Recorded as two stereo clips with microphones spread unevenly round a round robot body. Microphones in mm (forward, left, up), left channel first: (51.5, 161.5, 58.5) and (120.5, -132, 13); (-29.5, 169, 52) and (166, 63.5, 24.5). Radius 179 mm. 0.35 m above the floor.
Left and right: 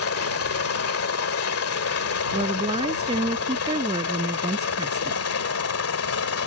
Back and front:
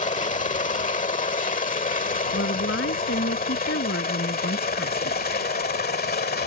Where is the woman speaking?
155° right.